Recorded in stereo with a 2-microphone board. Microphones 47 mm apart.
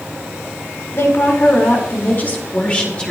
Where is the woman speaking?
55° left (ahead or behind), 5 m; by 3.1 s 20° left (ahead or behind), 4.5 m.